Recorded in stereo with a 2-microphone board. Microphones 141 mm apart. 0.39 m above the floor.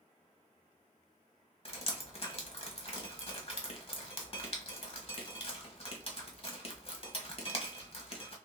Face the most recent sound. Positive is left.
turn(degrees=45)  # may be behind; listen again after turning